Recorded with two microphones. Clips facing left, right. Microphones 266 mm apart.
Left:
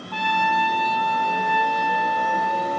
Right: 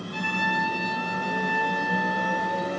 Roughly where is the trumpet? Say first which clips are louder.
Left 4 dB; right.